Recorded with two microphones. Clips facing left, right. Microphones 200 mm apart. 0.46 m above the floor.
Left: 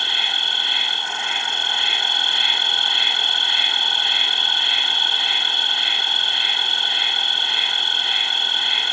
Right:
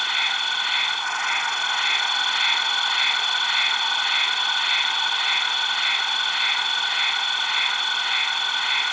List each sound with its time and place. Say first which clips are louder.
0.0 s an insect: left 1 dB; 30° left (ahead or behind)